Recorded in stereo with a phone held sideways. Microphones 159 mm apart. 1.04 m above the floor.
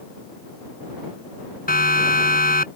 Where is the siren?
75° left (ahead or behind).